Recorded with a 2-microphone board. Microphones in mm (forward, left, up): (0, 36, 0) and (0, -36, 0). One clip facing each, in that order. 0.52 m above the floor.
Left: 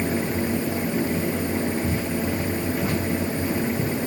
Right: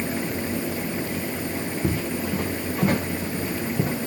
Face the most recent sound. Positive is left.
turn(degrees=-50)  # may be behind; listen again after turning